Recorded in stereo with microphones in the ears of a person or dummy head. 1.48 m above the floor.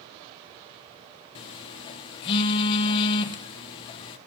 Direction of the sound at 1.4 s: 30° left (ahead or behind).